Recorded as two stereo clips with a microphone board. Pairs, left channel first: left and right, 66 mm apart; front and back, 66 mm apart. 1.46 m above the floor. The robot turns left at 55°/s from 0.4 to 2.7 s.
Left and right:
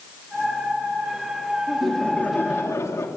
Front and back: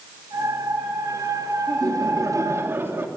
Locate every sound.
1.7 s laughter: 175° right, 3 m; by 3.1 s 130° left, 3 m